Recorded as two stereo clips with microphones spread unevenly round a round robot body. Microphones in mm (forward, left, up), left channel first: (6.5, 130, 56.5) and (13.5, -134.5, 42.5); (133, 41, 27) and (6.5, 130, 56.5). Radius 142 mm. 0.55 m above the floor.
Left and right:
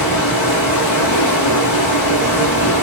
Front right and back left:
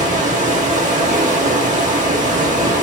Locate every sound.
0.0 s running water: 105° left, 1.9 m